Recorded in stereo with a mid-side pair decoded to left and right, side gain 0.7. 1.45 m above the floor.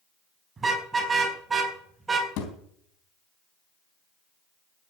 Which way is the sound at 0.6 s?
20° right.